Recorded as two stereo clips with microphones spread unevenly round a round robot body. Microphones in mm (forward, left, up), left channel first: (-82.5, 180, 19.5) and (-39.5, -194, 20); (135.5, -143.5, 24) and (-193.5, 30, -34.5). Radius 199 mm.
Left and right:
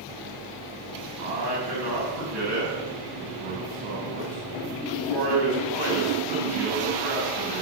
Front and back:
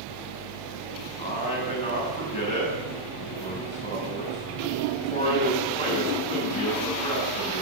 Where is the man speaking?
100° right, 6.5 m.